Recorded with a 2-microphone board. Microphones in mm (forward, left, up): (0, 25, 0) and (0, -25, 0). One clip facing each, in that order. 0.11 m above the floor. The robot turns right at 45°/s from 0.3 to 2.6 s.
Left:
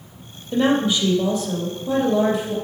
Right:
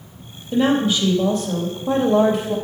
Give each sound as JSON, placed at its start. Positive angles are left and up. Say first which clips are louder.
{"t": 0.5, "sound": "a woman speaking", "louder": "right 1 dB", "azimuth_deg": -170, "distance_m": 2.5}